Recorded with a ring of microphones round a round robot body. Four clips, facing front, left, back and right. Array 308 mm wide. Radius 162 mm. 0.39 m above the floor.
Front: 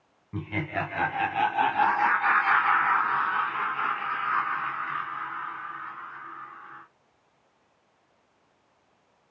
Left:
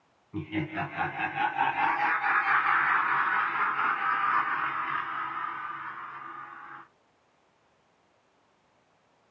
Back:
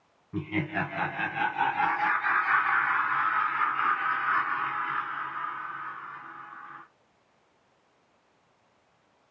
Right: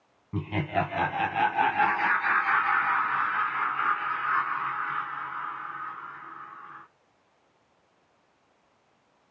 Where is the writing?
No writing in this recording.